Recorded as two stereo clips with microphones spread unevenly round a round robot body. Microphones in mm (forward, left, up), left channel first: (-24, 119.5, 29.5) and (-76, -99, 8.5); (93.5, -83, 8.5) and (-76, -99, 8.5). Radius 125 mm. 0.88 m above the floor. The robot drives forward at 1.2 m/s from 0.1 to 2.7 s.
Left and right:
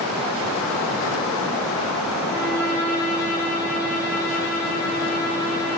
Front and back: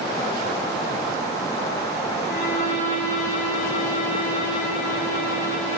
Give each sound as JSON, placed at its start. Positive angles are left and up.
{"t": 2.2, "sound": "a violin", "azimuth_deg": -5, "distance_m": 6.0}